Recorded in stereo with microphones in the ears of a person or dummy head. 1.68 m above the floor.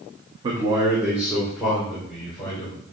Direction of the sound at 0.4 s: 30° right (ahead or behind).